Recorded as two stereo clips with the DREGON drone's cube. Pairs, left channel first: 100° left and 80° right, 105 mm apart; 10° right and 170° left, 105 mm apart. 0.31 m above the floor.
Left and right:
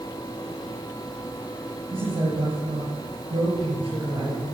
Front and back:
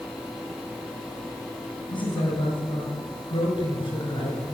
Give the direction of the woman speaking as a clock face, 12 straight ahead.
2 o'clock.